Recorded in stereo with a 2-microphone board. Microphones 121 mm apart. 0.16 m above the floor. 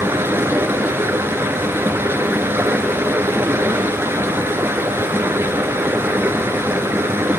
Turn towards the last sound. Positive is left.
turn(degrees=-20)  # may be behind; listen again after turning